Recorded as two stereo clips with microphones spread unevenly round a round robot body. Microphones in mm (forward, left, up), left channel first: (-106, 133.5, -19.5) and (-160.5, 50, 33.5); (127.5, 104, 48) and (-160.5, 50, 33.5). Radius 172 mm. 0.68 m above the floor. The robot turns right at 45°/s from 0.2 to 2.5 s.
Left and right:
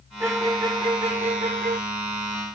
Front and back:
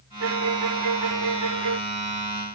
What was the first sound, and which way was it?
A violin, 160° left.